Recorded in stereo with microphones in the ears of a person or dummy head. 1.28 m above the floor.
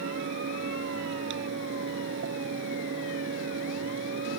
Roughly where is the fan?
Right.